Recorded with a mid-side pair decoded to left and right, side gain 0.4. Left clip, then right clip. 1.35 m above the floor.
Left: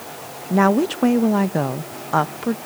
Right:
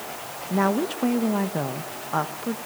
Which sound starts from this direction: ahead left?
A woman speaking, at 0.5 s.